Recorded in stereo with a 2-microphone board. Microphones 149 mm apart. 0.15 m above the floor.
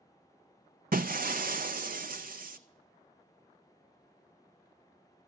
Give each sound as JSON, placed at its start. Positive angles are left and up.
{"t": 0.9, "sound": "breaking glass", "side_deg": -70, "distance_m": 0.5}